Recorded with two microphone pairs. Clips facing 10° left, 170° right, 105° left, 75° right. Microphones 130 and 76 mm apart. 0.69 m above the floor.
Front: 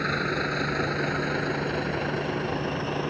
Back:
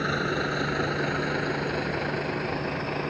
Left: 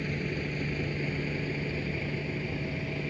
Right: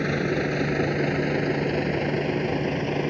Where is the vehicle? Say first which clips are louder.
Back 1 dB, right 9 dB; 85° right; by 3.1 s 75° right.